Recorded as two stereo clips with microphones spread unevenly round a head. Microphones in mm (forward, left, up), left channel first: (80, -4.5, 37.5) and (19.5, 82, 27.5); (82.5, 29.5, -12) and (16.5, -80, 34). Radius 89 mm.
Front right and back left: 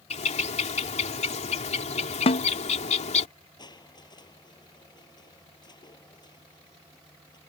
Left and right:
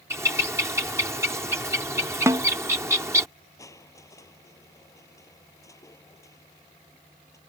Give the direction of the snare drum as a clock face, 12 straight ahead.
1 o'clock.